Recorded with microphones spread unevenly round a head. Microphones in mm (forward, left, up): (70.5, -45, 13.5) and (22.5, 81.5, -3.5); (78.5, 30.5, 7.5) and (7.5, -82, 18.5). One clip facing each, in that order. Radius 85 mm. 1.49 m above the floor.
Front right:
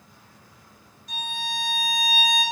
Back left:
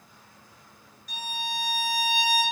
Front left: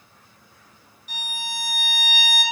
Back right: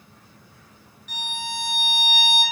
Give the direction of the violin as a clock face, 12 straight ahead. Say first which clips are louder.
Front right 1 dB, back right 3 dB; 1 o'clock.